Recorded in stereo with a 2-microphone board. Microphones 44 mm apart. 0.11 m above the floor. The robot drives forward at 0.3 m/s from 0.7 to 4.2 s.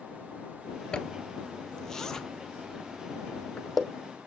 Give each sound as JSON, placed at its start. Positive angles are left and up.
{"t": 0.9, "sound": "a zipper", "side_deg": 20, "distance_m": 0.5}